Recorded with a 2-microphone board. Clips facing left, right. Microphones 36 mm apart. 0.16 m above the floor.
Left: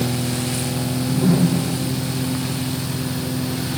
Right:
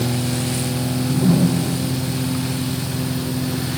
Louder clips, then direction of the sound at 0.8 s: Right 1 dB; 10° right (ahead or behind).